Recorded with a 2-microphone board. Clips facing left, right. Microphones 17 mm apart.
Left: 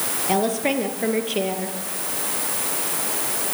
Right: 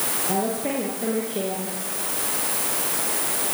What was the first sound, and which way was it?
A woman speaking, 55° left (ahead or behind).